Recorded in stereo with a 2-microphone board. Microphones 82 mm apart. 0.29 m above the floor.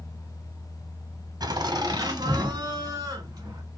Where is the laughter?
50° right (ahead or behind), 1.5 m; by 3.6 s 40° right (ahead or behind), 2.5 m.